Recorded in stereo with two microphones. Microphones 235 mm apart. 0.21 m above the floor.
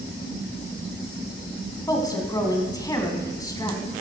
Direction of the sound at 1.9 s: 15° left (ahead or behind).